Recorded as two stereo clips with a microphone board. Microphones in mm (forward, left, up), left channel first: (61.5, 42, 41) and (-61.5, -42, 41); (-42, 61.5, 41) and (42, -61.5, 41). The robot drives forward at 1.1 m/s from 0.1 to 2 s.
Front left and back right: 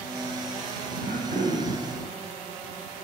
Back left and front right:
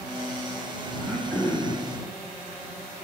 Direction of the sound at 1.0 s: 155° right.